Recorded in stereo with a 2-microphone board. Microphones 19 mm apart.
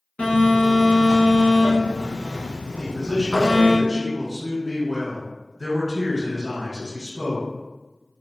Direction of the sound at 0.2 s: 60° left (ahead or behind).